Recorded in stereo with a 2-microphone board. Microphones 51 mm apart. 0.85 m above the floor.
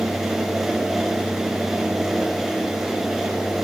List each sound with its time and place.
Only background noise.